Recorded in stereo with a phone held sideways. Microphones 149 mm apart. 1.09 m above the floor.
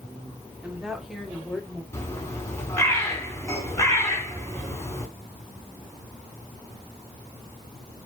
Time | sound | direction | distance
0.6 | a woman speaking | 10° right (ahead or behind) | 2 m
1.9 | a bird | 20° left (ahead or behind) | 2.5 m